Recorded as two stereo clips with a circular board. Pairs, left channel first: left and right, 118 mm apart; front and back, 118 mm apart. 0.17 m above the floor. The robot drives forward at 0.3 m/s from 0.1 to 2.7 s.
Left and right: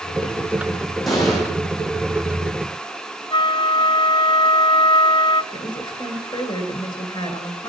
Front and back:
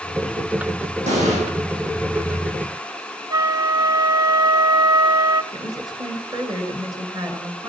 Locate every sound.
1.1 s an explosion: straight behind, 6 m
3.3 s a flute: 130° left, 0.5 m
5.5 s a woman speaking: 130° left, 2.5 m